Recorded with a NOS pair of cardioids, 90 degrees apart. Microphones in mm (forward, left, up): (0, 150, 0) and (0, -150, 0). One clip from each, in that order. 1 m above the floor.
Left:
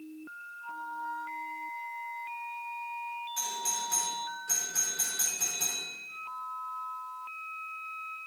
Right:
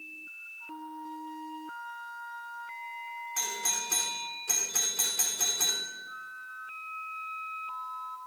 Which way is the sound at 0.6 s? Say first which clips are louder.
Left 7 dB; 65° right.